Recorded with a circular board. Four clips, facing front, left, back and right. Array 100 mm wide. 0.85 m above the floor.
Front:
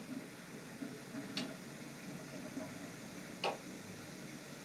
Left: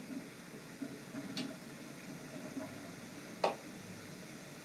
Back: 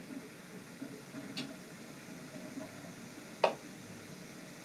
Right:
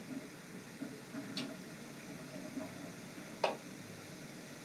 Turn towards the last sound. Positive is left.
turn(degrees=-175)